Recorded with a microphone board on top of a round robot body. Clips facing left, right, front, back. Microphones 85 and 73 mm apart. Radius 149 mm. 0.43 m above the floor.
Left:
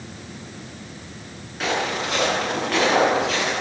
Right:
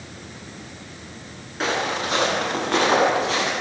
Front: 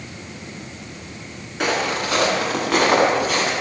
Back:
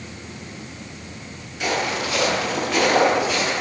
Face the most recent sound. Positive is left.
turn(degrees=-25)